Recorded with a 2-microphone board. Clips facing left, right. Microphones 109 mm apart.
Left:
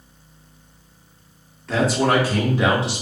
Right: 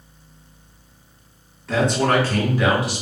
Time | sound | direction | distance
1.7 | a man speaking | centre (ahead or behind) | 0.9 m